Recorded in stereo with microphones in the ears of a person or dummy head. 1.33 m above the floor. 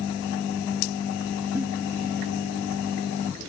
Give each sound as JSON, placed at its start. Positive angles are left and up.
{"t": 1.6, "sound": "a giggle", "side_deg": -10, "distance_m": 0.6}